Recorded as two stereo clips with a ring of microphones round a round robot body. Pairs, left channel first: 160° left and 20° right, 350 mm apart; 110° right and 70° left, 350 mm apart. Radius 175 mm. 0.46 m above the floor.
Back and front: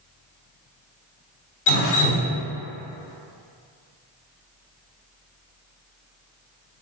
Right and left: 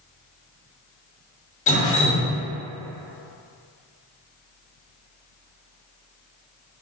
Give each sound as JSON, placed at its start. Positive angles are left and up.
{"t": 1.7, "sound": "dripping", "azimuth_deg": 180, "distance_m": 0.9}